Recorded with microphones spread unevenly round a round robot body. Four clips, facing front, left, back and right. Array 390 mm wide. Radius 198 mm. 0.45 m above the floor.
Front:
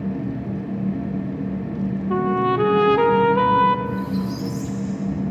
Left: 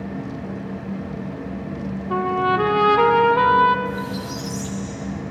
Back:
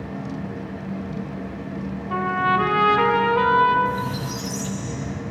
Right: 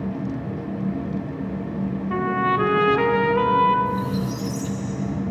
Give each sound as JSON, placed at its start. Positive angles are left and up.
{"t": 2.1, "sound": "a trumpet", "azimuth_deg": 15, "distance_m": 0.5}
{"t": 3.9, "sound": "a squeak", "azimuth_deg": -145, "distance_m": 1.4}